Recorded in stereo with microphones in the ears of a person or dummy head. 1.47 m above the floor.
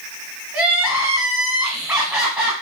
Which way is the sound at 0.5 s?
10° right (ahead or behind).